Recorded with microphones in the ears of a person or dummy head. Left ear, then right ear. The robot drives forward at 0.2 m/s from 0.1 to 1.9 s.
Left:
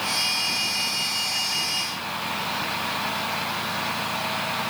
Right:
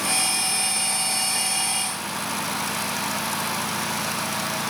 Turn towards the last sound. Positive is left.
No sound to turn to.